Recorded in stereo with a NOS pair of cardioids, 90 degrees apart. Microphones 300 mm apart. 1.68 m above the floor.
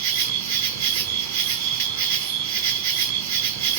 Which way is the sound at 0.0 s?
60° right.